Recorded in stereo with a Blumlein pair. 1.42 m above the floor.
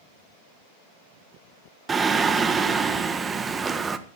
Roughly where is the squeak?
I don't hear a squeak.